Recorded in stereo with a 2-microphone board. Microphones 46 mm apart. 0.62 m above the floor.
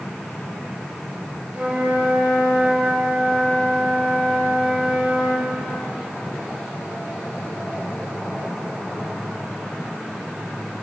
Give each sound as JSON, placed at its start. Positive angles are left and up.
{"t": 1.5, "sound": "a flute", "side_deg": -35, "distance_m": 1.5}